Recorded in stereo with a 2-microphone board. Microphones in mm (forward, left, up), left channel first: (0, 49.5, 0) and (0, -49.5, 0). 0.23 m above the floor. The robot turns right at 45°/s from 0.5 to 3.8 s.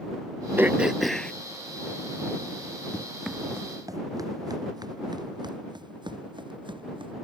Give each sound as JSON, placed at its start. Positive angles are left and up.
{"t": 0.6, "sound": "throat clearing", "azimuth_deg": -20}
{"t": 2.9, "sound": "running footsteps", "side_deg": 10}